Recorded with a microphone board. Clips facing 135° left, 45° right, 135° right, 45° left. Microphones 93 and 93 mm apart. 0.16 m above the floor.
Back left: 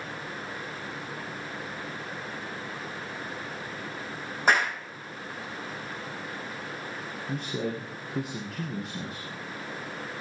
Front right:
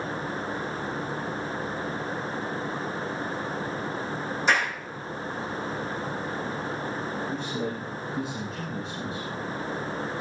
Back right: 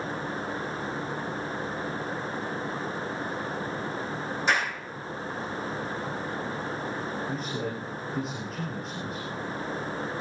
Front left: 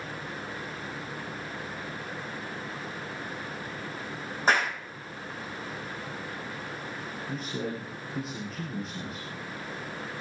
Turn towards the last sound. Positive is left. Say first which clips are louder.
# front right 1 dB, back right 2 dB
turn(degrees=135)